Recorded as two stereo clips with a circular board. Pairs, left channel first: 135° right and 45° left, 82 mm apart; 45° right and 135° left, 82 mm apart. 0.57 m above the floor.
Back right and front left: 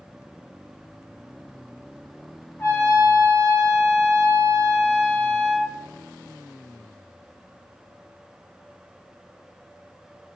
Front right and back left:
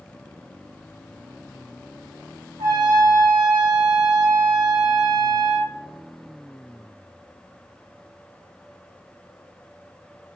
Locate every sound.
2.6 s a trumpet: 160° left, 1.5 m